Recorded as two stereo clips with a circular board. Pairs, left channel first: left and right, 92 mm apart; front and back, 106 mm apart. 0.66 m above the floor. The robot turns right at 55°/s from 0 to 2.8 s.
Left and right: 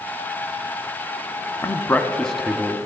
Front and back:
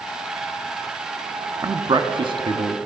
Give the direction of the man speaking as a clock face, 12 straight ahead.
7 o'clock.